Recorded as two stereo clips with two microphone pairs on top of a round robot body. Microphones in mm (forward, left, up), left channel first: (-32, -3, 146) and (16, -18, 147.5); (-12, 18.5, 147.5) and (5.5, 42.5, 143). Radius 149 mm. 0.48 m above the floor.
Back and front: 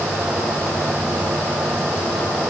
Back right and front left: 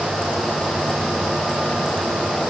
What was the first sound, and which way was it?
Only background noise.